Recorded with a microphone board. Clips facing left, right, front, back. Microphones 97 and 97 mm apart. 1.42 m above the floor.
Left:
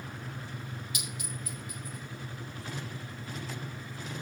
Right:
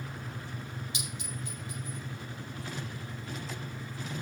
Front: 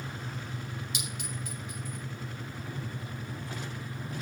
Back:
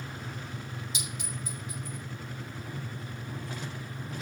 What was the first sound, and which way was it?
A clink, 25° right.